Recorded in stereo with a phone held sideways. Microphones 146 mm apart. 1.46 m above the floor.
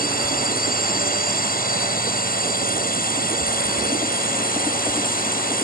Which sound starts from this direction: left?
A drone, at 0.0 s.